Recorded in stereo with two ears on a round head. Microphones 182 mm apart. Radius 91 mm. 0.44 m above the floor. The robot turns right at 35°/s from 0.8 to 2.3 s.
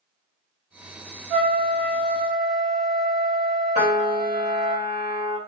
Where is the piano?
35° right (ahead or behind), 1.4 m.